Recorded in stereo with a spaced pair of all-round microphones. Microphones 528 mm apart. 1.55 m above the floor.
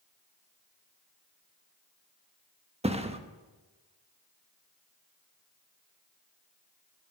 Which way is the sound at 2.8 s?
10° right (ahead or behind).